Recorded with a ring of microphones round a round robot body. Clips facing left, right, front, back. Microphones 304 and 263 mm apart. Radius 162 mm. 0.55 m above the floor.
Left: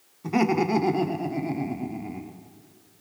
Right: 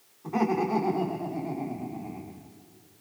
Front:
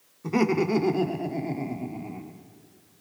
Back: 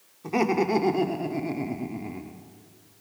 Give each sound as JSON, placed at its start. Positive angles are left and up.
{"t": 0.2, "sound": "laughter", "azimuth_deg": 65, "distance_m": 2.0}